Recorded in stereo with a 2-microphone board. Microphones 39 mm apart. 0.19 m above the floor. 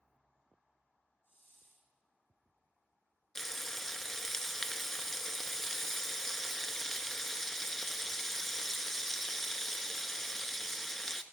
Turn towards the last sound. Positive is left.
turn(degrees=10)  # may be behind; listen again after turning